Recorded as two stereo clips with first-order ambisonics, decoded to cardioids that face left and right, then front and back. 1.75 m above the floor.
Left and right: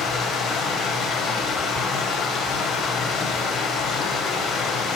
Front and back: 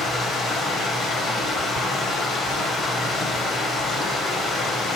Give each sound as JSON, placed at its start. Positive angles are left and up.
{"t": 0.0, "sound": "running water", "azimuth_deg": 60, "distance_m": 0.8}